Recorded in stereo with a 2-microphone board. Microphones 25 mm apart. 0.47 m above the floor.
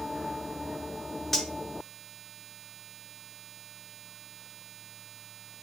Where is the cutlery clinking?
10° left (ahead or behind), 0.6 m.